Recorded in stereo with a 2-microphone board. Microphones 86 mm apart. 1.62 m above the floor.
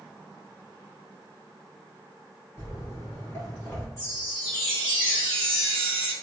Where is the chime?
40° left (ahead or behind), 1.8 m.